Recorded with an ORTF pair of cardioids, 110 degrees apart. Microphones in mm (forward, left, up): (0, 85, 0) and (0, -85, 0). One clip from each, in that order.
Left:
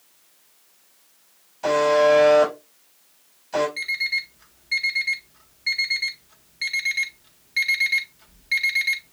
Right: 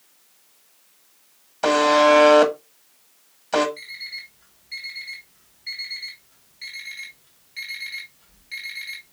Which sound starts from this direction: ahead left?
An alarm clock, at 3.8 s.